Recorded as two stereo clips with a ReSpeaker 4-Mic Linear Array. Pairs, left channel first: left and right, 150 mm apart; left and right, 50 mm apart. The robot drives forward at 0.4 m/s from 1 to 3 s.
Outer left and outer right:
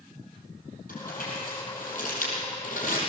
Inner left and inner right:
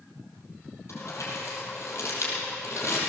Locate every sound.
0.9 s crumpling: 70° left (ahead or behind), 6 m; by 3.0 s 60° left (ahead or behind), 6.5 m